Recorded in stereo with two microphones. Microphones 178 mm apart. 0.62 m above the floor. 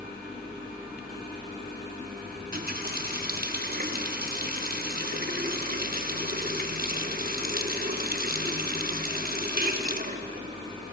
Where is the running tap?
60° right (ahead or behind), 0.8 m.